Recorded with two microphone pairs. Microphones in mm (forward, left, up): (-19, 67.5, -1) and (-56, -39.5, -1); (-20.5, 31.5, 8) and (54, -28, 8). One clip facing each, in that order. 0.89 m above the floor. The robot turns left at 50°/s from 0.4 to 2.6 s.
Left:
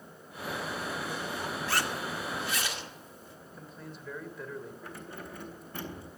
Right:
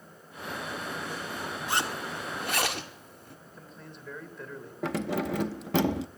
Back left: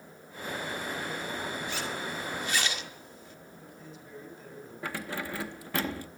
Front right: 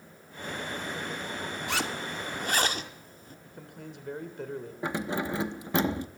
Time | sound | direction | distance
1.7 | a zipper | 35° right | 2.0 m
3.5 | a man speaking | 15° right | 3 m
4.8 | keys jangling | 105° right | 0.6 m